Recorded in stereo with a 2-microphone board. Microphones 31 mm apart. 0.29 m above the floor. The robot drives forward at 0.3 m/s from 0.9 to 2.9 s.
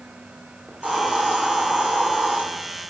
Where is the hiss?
65° right (ahead or behind), 6.5 m.